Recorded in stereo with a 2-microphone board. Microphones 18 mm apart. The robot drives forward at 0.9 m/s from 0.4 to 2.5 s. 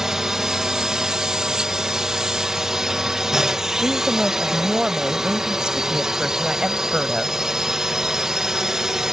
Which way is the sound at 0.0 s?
30° right (ahead or behind).